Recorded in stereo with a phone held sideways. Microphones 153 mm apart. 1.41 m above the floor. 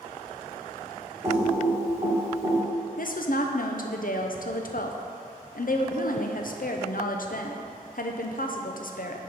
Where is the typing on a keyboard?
20° right (ahead or behind), 1.7 m.